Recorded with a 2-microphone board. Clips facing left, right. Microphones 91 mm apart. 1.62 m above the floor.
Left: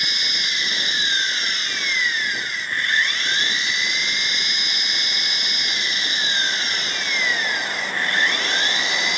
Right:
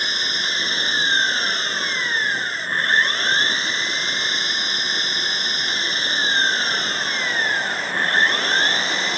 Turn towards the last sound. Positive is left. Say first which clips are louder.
# right 3 dB
turn(degrees=-40)  # may be behind; listen again after turning